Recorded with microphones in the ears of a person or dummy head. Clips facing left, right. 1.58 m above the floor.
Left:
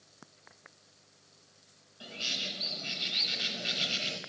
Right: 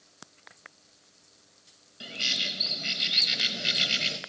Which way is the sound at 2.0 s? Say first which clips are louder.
Right 3 dB; 25° right (ahead or behind).